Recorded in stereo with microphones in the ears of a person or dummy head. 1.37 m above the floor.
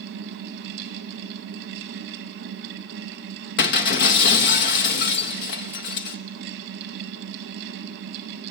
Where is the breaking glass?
60° left (ahead or behind), 0.9 m.